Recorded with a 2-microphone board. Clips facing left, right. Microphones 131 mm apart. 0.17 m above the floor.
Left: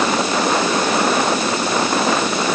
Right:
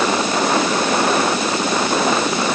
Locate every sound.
Only background noise.